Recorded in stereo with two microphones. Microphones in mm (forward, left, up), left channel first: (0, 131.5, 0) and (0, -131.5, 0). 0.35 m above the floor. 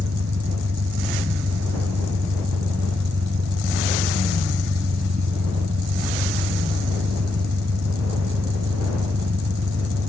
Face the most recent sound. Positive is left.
turn(degrees=-75)  # may be behind; listen again after turning